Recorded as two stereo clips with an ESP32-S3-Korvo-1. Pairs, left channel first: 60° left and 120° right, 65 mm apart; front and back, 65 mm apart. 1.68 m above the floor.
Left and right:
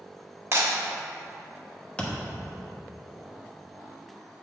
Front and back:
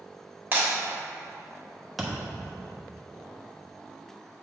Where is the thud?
90° left, 1.0 m.